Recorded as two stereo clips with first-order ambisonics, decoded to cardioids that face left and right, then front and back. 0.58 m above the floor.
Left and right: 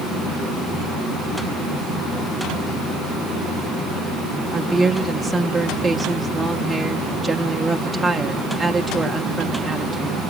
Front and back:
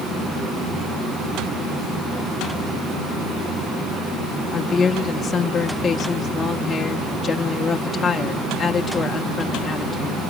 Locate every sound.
4.5 s a woman speaking: 5° right, 0.6 m